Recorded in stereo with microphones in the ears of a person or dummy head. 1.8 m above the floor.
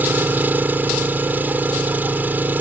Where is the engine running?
10° right (ahead or behind).